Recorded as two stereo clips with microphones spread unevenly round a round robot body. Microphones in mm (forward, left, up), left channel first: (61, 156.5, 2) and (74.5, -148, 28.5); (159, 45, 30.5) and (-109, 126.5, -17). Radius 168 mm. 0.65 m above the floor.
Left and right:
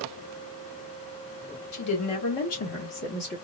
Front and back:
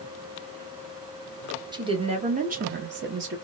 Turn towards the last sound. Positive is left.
turn(degrees=145)